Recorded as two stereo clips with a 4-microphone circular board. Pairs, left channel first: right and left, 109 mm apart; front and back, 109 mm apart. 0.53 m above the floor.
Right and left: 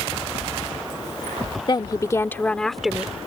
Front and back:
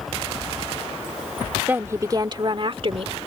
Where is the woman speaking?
115° right; by 3.1 s 170° left.